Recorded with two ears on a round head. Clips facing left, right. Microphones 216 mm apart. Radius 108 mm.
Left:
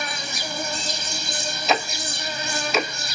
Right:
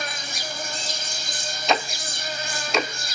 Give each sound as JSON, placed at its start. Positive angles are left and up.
{"t": 0.0, "sound": "an insect", "side_deg": 65, "distance_m": 1.1}
{"t": 1.7, "sound": "ticking", "side_deg": 0, "distance_m": 0.5}